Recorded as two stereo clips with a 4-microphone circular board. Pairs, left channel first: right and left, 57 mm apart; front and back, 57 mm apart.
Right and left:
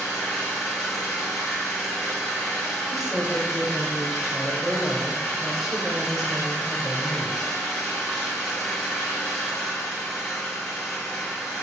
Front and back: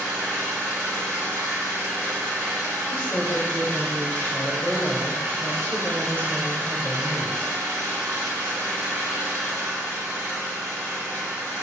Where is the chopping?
No chopping in this recording.